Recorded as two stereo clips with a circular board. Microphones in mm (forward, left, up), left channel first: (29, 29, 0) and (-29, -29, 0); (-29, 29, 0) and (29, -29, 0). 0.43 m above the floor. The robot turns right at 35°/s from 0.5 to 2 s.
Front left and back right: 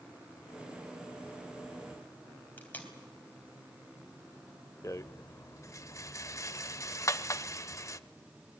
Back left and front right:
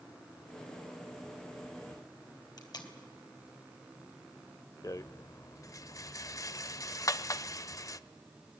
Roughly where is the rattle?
Left.